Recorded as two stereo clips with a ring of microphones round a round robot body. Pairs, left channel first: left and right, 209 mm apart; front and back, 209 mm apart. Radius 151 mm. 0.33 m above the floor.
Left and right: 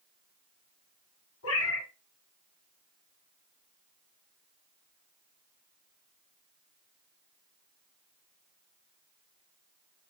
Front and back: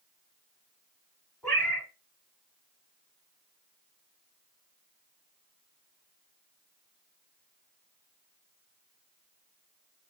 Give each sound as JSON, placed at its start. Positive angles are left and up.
{"t": 1.4, "sound": "a cat meowing", "azimuth_deg": 85, "distance_m": 1.5}